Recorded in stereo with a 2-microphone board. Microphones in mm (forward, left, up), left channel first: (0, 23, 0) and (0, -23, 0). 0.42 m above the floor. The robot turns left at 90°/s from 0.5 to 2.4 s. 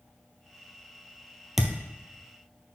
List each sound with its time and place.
1.6 s a thud: centre (ahead or behind), 0.9 m; by 1.8 s 15° left (ahead or behind), 0.9 m